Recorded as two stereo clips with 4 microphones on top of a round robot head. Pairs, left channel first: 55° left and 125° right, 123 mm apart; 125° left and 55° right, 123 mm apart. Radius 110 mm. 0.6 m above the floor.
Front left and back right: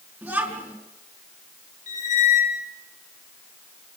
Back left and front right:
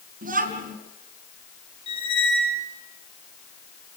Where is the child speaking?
50° right, 5 m.